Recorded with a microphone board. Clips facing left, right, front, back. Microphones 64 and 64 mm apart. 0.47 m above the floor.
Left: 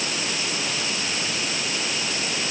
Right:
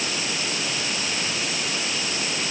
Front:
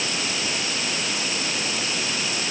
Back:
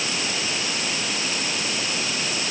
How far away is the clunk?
I don't hear a clunk.